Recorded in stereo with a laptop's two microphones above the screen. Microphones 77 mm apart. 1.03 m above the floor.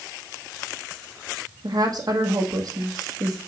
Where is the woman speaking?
55° right (ahead or behind), 1.1 m.